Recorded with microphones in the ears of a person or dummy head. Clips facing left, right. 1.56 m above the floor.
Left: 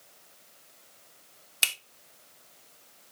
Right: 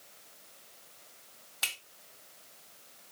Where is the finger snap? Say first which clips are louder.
Left 3 dB; 40° left (ahead or behind), 0.9 m.